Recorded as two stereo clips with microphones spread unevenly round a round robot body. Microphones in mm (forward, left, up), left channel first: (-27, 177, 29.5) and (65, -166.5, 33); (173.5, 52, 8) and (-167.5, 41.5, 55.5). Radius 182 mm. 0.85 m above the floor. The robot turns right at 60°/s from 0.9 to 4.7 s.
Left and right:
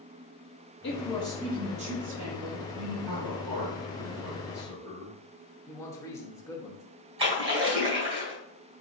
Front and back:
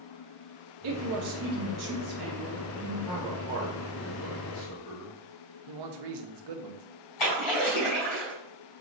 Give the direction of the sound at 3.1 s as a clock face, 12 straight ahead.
3 o'clock.